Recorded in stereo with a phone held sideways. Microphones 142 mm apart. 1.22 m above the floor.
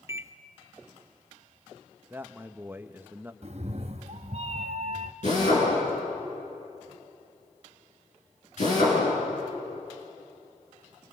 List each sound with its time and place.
0.1 s a microwave: 20° right (ahead or behind), 0.6 m
2.1 s a man speaking: 15° right (ahead or behind), 1.0 m
3.4 s a cat meowing: 50° right (ahead or behind), 0.7 m
5.2 s a drill: 60° left (ahead or behind), 10 m